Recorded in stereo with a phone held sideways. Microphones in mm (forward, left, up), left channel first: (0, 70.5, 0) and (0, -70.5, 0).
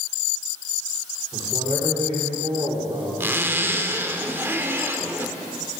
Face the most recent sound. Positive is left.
turn(degrees=-15)  # may be behind; listen again after turning